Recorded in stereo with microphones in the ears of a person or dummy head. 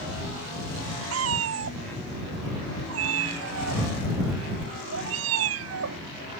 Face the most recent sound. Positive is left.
turn(degrees=-75)  # may be behind; listen again after turning